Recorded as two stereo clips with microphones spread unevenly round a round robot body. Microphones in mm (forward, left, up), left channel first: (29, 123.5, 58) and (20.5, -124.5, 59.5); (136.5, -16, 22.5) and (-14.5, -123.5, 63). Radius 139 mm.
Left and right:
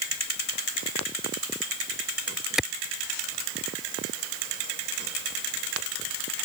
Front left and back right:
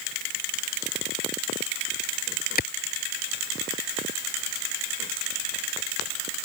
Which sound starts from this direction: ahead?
A clap, at 2.6 s.